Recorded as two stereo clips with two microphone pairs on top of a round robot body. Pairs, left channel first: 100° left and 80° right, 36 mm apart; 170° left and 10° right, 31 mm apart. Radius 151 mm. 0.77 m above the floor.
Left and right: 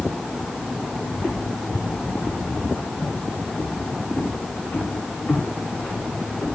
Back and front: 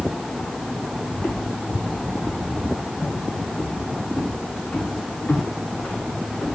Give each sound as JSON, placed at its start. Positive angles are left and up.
{"t": 1.1, "sound": "footsteps", "azimuth_deg": -165, "distance_m": 0.9}